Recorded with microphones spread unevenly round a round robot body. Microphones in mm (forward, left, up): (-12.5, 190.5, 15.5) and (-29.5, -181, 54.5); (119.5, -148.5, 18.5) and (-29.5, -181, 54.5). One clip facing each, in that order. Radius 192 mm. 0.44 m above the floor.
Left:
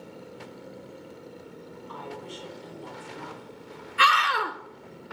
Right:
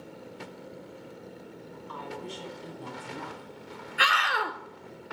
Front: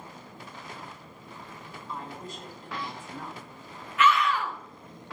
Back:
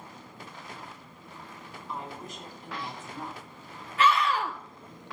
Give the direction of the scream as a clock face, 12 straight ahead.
7 o'clock.